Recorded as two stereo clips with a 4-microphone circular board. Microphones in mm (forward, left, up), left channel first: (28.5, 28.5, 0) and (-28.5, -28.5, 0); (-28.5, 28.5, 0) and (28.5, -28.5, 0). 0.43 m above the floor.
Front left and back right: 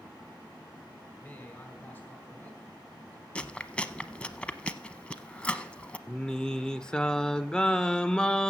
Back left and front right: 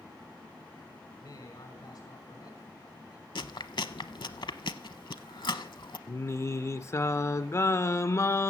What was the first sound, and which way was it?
A man speaking, 120° left.